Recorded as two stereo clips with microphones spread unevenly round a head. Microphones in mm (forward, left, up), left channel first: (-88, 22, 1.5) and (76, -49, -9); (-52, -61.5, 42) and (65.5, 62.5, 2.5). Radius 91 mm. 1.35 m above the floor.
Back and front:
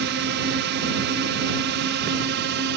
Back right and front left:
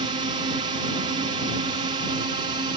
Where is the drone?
10° right.